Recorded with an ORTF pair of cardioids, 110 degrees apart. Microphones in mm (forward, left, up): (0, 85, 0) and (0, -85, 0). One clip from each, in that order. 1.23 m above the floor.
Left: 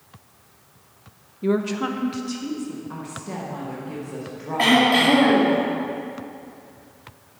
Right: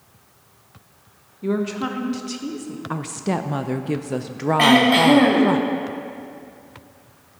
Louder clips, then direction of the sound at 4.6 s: Right 2 dB; 25° right.